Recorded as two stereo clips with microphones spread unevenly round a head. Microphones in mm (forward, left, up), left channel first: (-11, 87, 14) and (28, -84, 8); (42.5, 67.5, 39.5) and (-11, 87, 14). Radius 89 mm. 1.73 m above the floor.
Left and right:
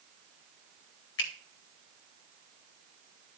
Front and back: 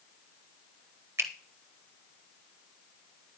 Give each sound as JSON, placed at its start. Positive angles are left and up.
{"t": 1.2, "sound": "a finger snap", "azimuth_deg": 115, "distance_m": 1.4}